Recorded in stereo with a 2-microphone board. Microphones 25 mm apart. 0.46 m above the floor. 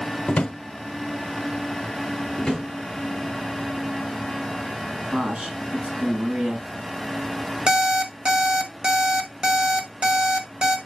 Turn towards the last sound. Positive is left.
turn(degrees=-40)  # may be behind; listen again after turning